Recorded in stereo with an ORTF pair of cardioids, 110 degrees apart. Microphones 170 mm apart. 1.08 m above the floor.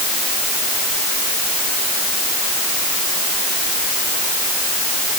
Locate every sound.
Only background noise.